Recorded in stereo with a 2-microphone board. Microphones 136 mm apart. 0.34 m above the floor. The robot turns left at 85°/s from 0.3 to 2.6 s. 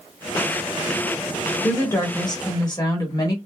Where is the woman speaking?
160° left, 1.1 m; by 3.4 s 80° left, 1.1 m.